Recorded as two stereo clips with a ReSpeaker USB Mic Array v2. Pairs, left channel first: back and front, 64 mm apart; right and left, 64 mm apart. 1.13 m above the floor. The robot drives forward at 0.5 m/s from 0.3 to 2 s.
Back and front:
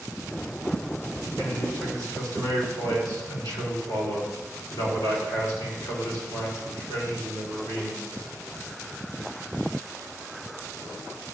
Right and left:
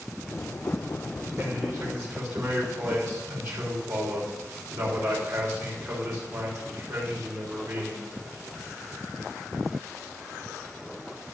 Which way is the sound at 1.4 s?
140° left.